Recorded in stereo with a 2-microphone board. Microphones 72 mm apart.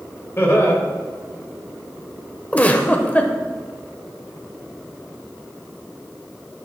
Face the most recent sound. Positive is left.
turn(degrees=20)  # may be behind; listen again after turning